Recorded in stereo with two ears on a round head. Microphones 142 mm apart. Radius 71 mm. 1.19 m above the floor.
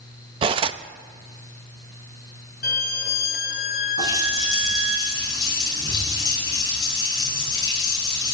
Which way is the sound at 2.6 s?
60° left (ahead or behind).